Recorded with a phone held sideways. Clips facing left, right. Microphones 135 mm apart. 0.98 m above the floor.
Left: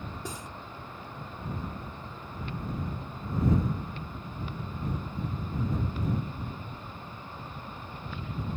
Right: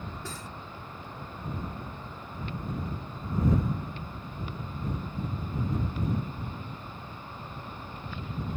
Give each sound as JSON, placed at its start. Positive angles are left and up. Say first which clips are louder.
{"t": 0.2, "sound": "cutlery clinking", "louder": "left 1 dB", "side_deg": 20}